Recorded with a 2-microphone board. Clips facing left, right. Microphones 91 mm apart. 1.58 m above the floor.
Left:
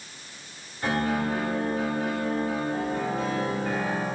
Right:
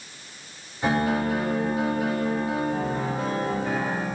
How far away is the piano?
About 3 m.